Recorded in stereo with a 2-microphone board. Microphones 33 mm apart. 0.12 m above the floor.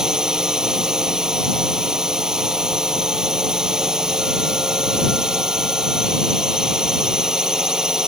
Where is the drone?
15° right (ahead or behind).